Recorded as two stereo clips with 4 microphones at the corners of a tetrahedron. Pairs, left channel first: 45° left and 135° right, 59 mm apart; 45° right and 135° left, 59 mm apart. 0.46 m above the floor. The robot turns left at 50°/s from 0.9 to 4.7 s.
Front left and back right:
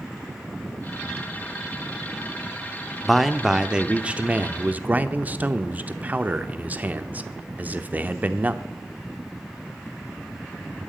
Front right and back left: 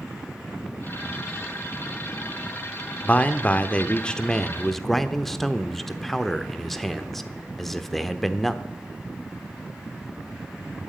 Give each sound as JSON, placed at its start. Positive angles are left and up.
{"t": 3.0, "sound": "a man speaking", "azimuth_deg": -40, "distance_m": 0.8}